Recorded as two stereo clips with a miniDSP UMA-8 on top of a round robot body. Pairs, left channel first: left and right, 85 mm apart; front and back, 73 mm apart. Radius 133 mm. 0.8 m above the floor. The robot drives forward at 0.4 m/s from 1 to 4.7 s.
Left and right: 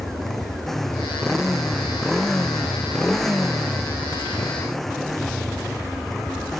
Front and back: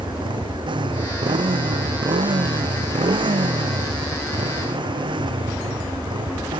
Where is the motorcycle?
175° left.